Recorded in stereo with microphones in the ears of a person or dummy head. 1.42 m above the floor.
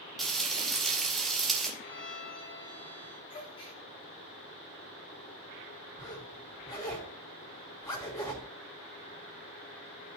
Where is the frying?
Centre (ahead or behind), 2 m.